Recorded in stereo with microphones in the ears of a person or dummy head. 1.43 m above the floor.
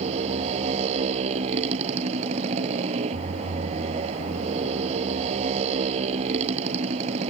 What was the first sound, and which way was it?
A motorcycle, 35° right (ahead or behind).